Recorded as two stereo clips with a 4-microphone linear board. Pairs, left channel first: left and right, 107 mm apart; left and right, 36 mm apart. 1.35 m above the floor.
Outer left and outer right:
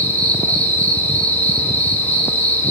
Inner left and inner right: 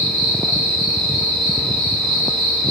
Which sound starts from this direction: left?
An insect, at 0.0 s.